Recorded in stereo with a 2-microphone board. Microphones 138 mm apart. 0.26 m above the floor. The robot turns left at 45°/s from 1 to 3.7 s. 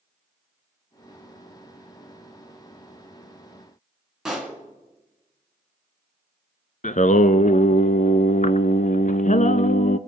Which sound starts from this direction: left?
Singing, at 6.8 s.